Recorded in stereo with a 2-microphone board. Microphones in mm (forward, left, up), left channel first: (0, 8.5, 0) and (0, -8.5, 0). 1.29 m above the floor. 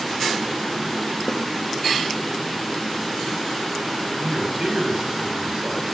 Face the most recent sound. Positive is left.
turn(degrees=-85)